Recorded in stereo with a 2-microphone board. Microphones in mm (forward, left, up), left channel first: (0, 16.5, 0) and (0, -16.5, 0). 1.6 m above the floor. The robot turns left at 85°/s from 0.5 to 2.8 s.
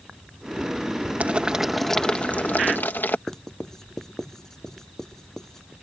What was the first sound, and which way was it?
Boiling, 135° right.